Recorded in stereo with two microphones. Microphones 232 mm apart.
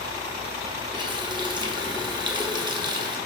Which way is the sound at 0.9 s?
20° right (ahead or behind).